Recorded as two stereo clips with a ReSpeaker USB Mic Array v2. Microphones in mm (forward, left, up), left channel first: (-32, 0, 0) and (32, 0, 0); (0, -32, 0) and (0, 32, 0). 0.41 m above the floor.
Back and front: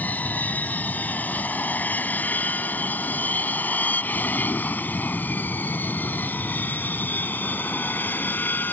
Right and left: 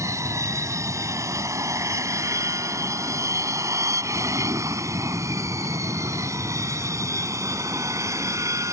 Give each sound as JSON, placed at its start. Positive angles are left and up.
{"t": 0.0, "sound": "an aircraft", "azimuth_deg": 120}